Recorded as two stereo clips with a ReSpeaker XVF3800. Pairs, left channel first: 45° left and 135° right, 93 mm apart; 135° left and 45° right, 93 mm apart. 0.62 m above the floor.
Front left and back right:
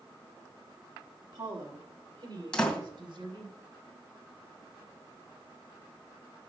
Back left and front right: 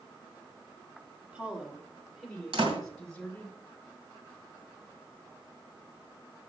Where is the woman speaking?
115° right, 1.5 m; by 3.5 s 150° right, 3.5 m.